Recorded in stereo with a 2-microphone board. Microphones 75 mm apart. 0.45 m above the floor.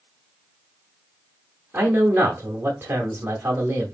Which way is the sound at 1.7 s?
30° right (ahead or behind).